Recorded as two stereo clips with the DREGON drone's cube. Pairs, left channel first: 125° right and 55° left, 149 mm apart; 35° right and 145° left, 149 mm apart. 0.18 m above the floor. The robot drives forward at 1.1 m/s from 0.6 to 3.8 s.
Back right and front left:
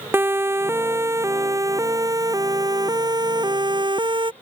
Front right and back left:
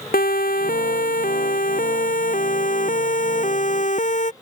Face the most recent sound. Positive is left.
turn(degrees=0)